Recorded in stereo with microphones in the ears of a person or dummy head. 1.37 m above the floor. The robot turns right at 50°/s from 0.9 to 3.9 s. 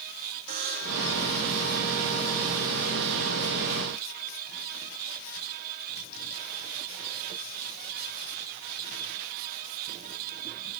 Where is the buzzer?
45° right (ahead or behind), 2.5 m; by 1.1 s 55° right (ahead or behind), 2.5 m.